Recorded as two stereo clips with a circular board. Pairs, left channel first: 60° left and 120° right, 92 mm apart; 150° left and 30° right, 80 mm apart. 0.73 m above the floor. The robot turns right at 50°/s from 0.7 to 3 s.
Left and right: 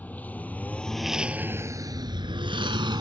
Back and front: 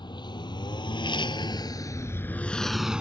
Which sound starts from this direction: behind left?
A lawn mower, at 0.0 s.